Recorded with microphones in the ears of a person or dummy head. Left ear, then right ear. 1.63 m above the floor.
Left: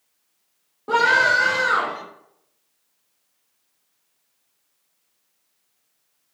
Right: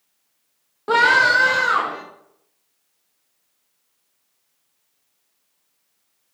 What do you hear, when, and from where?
0.9 s a scream: 25° right (ahead or behind), 0.5 m; by 2.0 s 20° right (ahead or behind), 1.5 m